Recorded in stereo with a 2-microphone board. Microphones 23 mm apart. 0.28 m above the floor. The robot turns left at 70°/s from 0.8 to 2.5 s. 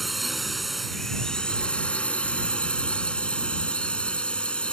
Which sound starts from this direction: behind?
A drone, at 0.0 s.